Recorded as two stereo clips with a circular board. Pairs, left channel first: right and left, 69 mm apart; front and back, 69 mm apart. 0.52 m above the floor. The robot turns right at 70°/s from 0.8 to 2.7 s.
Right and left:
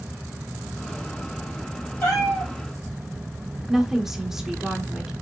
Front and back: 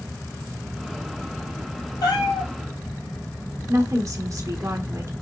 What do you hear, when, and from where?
2.0 s a cat meowing: 25° right, 3 m; by 2.5 s 15° left, 3 m
3.7 s a woman speaking: 170° left, 1.0 m